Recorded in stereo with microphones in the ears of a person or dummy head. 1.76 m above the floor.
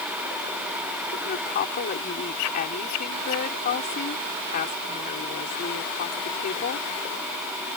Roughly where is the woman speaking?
Left.